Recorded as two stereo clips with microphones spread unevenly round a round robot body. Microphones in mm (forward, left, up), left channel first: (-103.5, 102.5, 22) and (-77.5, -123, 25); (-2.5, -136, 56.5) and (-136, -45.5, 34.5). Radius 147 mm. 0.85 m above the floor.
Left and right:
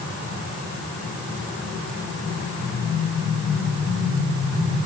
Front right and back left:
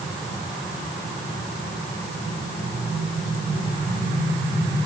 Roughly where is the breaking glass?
I don't hear breaking glass.